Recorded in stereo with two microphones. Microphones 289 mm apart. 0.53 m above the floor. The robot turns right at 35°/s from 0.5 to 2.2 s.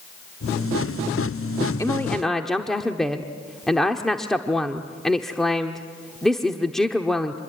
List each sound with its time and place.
1.8 s a woman speaking: 10° left (ahead or behind), 1.0 m; by 7.4 s centre (ahead or behind), 1.0 m